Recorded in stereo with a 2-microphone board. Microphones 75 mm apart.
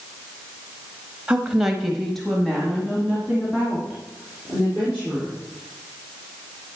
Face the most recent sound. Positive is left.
turn(degrees=15)  # may be behind; listen again after turning